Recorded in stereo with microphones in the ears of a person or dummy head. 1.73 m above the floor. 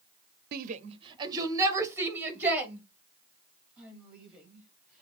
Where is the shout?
60° right (ahead or behind), 0.6 m; by 5.0 s 5° right (ahead or behind), 4.5 m.